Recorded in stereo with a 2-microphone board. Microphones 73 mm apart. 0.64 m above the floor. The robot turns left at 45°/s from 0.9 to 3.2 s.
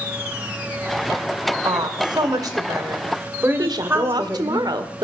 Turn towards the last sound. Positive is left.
turn(degrees=-70)  # may be behind; listen again after turning